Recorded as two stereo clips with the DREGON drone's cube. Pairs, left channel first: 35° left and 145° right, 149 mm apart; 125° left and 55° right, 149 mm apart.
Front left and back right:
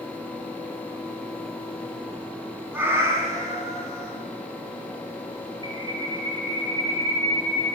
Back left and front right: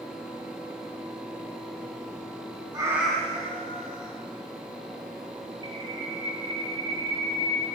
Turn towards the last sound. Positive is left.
turn(degrees=-15)